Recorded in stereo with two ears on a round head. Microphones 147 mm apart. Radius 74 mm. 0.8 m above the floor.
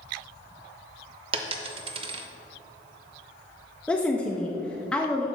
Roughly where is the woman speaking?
Centre.